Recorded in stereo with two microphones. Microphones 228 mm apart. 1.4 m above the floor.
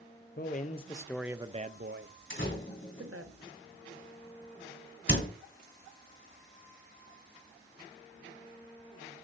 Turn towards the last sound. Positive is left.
turn(degrees=55)  # may be behind; listen again after turning